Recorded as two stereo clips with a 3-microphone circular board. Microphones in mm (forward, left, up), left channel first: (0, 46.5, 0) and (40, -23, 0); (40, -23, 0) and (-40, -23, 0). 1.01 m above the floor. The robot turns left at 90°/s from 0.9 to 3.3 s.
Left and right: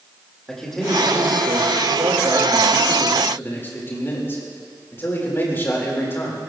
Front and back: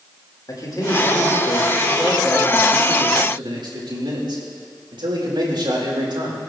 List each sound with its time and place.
0.5 s a man speaking: 35° left, 4 m; by 6.4 s straight behind, 4 m